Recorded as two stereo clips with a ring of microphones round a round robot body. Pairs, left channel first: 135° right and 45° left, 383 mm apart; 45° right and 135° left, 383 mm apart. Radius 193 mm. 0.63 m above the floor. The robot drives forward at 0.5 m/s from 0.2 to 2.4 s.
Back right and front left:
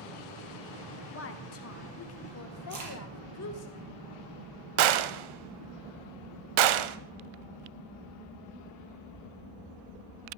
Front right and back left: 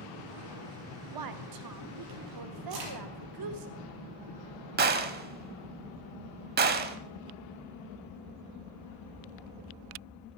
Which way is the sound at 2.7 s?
95° left.